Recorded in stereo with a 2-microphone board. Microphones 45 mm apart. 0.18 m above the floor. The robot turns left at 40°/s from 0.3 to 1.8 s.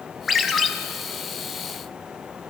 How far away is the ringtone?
About 0.6 m.